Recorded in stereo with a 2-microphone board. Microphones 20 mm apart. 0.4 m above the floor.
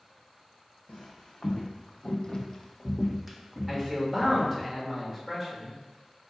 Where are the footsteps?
65° left (ahead or behind), 1.0 m; by 4.7 s 30° right (ahead or behind), 1.3 m.